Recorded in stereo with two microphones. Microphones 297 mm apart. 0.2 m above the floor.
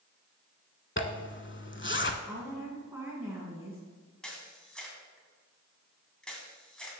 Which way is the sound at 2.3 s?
5° right (ahead or behind).